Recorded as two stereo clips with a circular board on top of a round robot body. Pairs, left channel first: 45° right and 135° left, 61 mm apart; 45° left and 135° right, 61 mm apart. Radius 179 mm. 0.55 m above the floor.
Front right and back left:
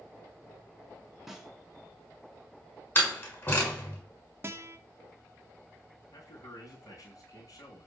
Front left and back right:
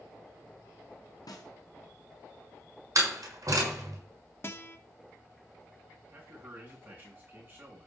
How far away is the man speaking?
About 5.5 m.